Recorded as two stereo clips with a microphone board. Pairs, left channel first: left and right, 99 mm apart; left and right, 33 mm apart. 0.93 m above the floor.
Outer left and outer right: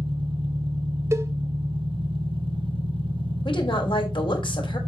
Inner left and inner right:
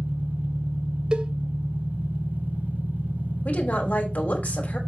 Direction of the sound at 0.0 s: 70° right (ahead or behind).